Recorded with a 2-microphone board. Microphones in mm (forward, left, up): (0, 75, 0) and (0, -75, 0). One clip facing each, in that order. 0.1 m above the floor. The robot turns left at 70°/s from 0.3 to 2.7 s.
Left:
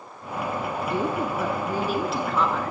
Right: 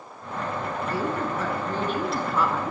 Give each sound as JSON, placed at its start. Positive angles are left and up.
{"t": 0.9, "sound": "a woman speaking", "side_deg": 20, "distance_m": 1.1}